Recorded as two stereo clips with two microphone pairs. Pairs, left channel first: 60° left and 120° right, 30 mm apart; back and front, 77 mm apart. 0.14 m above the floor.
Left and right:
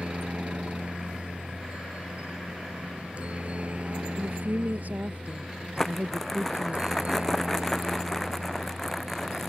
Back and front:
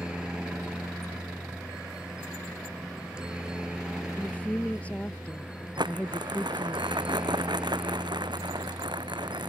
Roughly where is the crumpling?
Ahead.